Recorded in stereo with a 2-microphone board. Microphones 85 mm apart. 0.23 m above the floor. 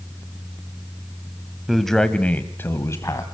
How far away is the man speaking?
About 1.1 m.